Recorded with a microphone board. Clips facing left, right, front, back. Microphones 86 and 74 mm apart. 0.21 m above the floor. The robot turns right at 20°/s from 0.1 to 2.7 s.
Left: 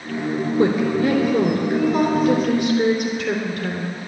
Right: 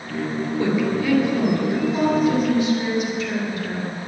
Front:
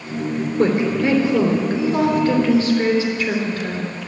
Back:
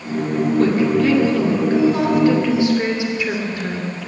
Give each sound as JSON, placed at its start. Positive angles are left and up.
{"t": 0.6, "sound": "a woman speaking", "azimuth_deg": 65, "distance_m": 3.0}